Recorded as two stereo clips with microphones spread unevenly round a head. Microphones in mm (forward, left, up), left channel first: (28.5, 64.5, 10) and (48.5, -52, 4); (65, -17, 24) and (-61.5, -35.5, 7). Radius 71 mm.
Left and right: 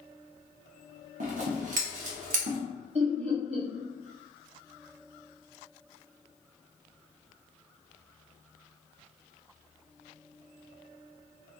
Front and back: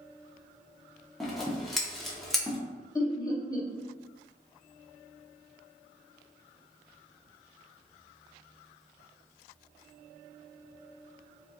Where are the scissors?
75° right, 0.6 m.